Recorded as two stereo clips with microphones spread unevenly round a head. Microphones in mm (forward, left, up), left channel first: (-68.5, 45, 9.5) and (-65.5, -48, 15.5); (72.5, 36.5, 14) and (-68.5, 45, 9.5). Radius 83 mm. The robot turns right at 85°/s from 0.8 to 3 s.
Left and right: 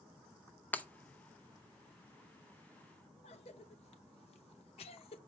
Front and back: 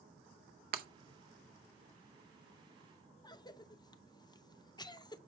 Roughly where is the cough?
Ahead left.